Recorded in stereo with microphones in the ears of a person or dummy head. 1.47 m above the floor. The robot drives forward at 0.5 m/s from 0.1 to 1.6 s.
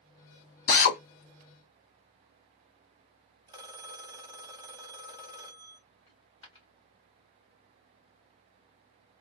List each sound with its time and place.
0.7 s a drill: 50° left (ahead or behind), 1.4 m
3.5 s a phone ringing: 20° right (ahead or behind), 1.3 m
6.1 s a dropped coin: 35° left (ahead or behind), 2.5 m